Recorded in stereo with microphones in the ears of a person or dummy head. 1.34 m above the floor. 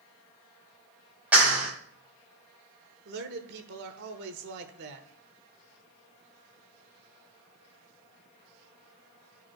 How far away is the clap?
About 5 m.